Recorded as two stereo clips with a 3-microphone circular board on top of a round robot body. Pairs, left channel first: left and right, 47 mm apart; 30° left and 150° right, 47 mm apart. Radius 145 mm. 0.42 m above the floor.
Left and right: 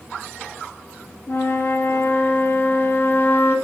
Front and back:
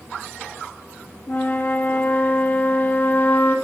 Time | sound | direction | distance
1.3 | a flute | 65° left | 1.0 m